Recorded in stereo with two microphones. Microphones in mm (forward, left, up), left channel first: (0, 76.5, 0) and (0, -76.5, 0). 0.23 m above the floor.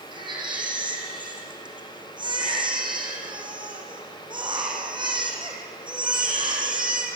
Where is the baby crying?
30° right (ahead or behind), 5 m.